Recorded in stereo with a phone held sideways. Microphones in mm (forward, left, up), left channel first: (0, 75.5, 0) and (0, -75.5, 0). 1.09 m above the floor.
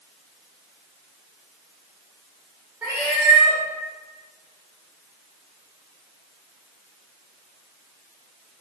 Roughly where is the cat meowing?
Centre.